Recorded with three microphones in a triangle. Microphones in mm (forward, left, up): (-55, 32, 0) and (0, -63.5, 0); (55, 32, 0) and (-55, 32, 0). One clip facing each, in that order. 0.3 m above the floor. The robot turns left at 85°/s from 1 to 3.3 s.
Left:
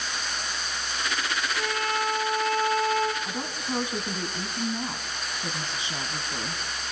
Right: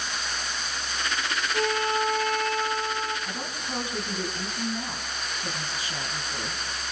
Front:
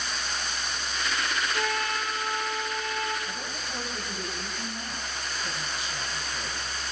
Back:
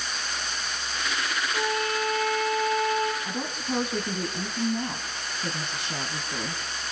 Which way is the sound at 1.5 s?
100° right.